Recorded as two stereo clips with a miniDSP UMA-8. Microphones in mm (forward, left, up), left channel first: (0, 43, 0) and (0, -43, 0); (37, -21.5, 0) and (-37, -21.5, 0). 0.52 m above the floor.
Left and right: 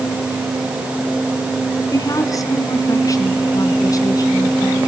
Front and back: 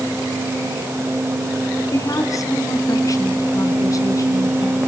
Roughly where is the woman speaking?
Ahead left.